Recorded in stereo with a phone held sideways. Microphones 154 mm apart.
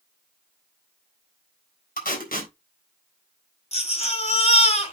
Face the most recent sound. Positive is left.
turn(degrees=45)  # may be behind; listen again after turning